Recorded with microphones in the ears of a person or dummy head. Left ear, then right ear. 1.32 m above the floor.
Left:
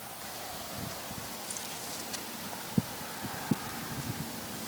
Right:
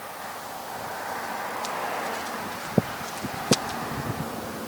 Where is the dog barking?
I don't hear a dog barking.